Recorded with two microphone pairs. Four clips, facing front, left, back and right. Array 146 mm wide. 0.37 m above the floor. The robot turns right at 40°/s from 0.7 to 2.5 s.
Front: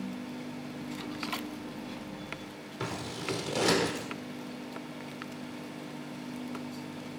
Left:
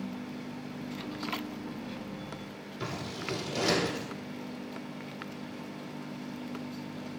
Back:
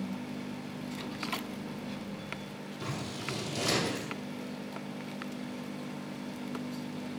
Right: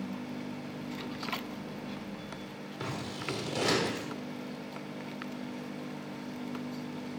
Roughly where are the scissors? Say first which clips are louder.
Left 1 dB, front 3 dB; ahead.